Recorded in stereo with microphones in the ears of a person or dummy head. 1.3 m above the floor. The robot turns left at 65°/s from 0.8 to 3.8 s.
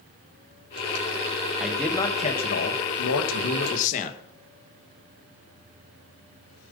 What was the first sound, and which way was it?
A man speaking, 170° right.